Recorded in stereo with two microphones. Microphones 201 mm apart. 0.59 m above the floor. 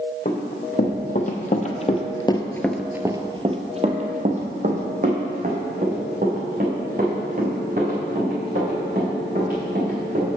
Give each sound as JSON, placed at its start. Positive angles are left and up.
{"t": 0.2, "sound": "running footsteps", "side_deg": 45, "distance_m": 1.7}